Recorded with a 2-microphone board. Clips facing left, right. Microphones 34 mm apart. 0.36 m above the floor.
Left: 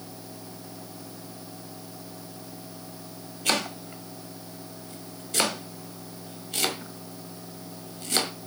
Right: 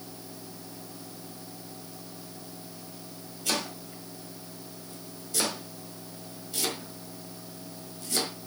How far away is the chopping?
About 1.6 m.